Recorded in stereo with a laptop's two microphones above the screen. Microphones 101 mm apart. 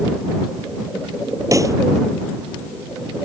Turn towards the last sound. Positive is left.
turn(degrees=-30)  # may be behind; listen again after turning